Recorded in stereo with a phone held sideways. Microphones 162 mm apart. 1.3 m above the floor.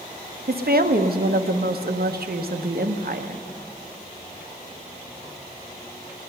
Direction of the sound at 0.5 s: 70° right (ahead or behind).